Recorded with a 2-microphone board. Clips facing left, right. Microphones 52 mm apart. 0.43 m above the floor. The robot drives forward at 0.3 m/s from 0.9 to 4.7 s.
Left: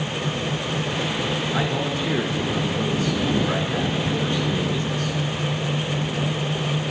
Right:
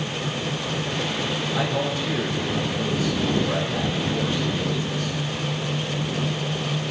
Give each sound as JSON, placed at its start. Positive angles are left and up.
{"t": 1.5, "sound": "a man speaking", "side_deg": 45, "distance_m": 6.5}